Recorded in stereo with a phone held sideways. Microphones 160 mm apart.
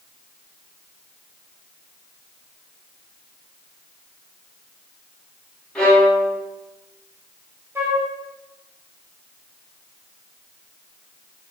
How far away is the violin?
About 0.8 m.